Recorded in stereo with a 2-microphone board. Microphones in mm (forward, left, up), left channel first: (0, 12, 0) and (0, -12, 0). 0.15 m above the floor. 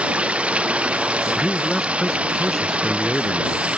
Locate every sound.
0.0 s running water: 70° right (ahead or behind)
1.4 s a man speaking: 15° left (ahead or behind)